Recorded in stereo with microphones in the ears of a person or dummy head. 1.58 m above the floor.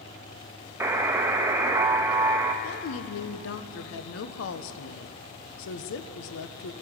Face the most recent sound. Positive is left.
turn(degrees=70)  # may be behind; listen again after turning